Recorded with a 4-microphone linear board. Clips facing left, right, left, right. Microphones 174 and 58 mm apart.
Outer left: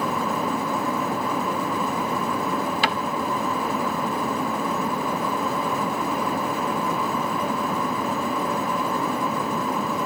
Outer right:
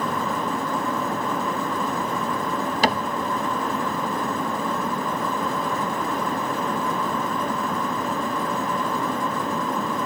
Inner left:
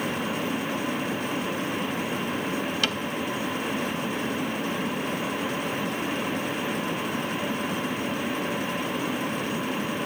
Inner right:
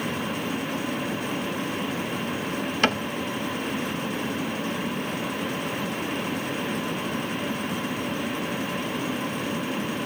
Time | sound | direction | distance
2.8 | a cupboard door | 40° right (ahead or behind) | 0.7 m